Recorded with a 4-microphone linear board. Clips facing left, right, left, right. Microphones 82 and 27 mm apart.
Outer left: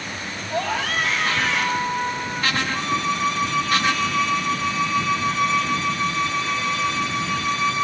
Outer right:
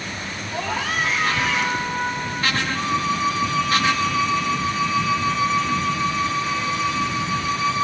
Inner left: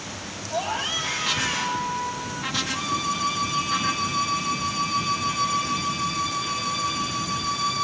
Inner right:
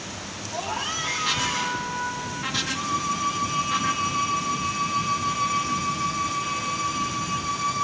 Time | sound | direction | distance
0.5 | a scream | 70° left (ahead or behind) | 9 m
2.7 | a violin | 75° left (ahead or behind) | 2 m